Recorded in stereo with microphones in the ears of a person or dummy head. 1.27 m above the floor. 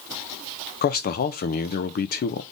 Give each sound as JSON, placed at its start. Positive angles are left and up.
{"t": 0.8, "sound": "a man speaking", "side_deg": 40, "distance_m": 0.6}